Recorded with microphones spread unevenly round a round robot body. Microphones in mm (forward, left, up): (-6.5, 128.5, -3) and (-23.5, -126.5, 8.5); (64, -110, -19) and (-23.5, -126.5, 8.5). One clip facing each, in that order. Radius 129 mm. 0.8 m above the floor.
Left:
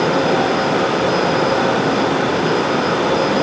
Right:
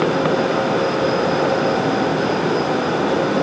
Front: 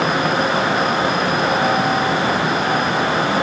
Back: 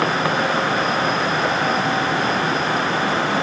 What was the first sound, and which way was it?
Only background noise.